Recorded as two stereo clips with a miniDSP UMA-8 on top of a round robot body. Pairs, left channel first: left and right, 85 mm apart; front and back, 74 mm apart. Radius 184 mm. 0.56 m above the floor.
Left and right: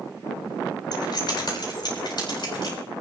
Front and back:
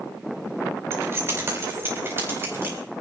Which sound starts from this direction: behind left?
Keys jangling, at 0.9 s.